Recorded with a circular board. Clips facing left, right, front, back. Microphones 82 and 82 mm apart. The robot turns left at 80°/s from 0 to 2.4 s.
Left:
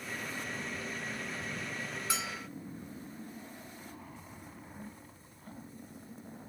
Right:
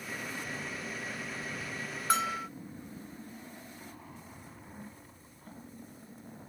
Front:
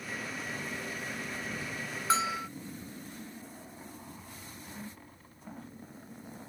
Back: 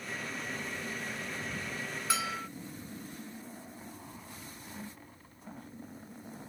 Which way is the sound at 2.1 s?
50° right.